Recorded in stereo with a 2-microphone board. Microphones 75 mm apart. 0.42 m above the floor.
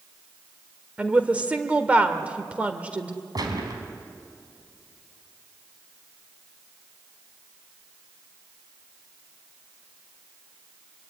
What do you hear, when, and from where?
1.0 s a woman speaking: 20° right (ahead or behind), 1.5 m
3.4 s a gunshot: 65° right (ahead or behind), 4 m